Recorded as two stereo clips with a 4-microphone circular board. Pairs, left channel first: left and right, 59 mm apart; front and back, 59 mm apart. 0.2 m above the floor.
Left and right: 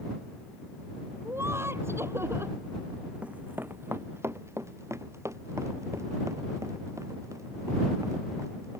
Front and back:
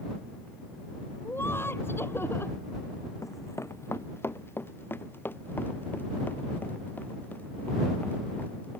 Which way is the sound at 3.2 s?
20° right.